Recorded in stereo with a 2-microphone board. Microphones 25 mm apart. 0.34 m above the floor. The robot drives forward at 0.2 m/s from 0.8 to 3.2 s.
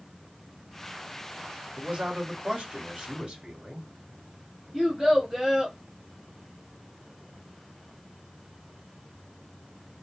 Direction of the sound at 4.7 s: 5° right (ahead or behind).